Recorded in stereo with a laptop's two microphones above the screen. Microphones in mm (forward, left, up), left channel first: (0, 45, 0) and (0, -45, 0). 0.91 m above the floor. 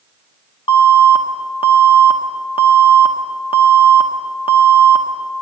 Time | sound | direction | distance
0.7 | an alarm | 80° left | 0.9 m